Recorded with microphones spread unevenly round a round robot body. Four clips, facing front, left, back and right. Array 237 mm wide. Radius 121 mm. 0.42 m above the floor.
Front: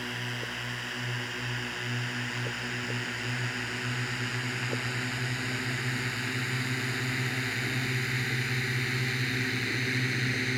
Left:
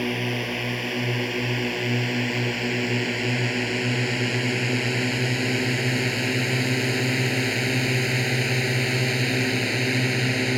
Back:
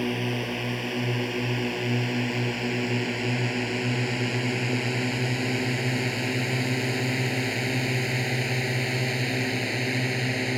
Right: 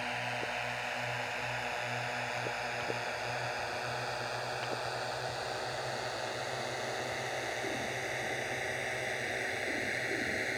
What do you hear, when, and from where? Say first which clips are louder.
0.0 s a drone: left 10 dB, back 9 dB; 130° left; by 10.6 s 95° left